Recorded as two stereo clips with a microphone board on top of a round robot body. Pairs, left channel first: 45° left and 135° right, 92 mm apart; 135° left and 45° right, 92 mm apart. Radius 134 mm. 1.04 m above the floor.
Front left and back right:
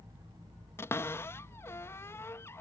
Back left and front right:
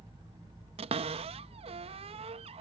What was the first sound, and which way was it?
A cupboard door, 20° right.